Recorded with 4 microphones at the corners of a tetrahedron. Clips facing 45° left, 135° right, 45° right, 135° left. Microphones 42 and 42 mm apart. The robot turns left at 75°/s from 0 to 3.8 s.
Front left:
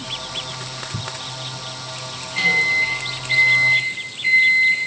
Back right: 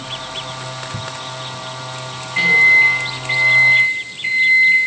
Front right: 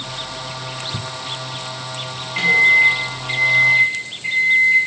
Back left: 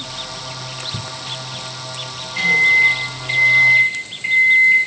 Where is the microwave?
80° right, 1.0 m; by 4.8 s 170° left, 1.0 m.